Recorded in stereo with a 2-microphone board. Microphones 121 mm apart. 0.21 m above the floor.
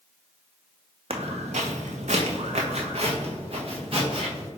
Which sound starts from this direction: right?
Footsteps, at 1.1 s.